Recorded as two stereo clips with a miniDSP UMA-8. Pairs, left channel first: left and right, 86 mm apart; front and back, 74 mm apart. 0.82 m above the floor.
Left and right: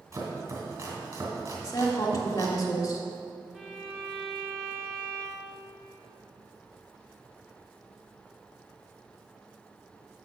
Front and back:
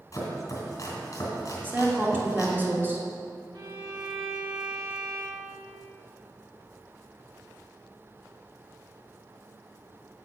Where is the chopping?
40° right, 2.5 m.